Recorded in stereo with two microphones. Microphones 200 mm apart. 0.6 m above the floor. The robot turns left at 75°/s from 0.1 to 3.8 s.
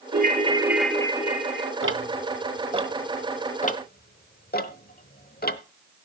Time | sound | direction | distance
0.1 | a ringtone | 125° right | 1.2 m
1.8 | ticking | 80° right | 0.9 m